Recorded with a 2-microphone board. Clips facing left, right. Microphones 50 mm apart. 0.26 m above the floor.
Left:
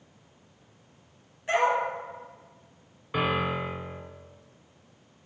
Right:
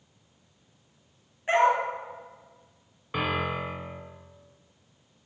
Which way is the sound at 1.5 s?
30° right (ahead or behind).